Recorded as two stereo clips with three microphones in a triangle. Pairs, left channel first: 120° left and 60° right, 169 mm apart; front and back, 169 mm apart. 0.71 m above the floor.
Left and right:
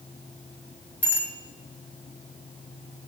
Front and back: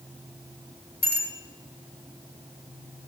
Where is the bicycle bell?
20° left, 3.5 m.